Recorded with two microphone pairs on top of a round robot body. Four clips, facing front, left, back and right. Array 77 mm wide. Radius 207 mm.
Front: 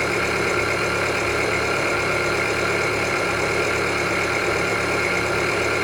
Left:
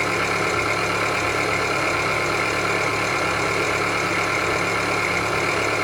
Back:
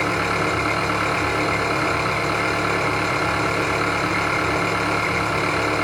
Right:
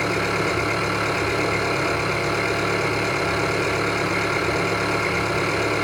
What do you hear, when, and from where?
0.0 s an engine running: straight behind, 4 m